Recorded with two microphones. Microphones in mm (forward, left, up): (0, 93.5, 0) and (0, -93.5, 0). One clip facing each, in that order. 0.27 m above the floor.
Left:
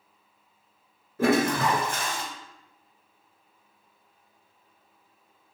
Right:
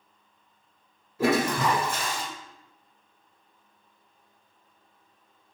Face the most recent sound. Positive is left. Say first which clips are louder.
# left 1 dB
turn(degrees=55)  # may be behind; listen again after turning